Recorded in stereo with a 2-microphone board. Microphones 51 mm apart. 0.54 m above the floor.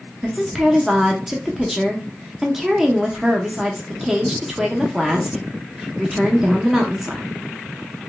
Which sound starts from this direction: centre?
A woman speaking, at 0.2 s.